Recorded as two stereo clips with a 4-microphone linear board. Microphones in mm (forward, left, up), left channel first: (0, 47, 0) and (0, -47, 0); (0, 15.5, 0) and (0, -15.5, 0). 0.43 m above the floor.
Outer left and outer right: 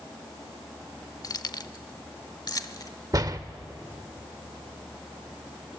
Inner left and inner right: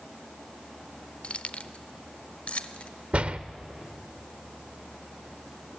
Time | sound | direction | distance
1.2 | keys jangling | 40° left (ahead or behind) | 0.6 m
3.1 | a door slam | 40° right (ahead or behind) | 0.7 m